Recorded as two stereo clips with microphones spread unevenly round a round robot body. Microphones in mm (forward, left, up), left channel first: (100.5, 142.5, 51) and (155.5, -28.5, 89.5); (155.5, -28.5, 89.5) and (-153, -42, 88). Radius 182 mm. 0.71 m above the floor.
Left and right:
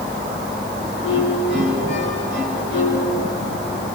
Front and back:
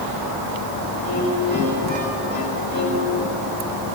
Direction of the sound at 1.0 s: 125° left.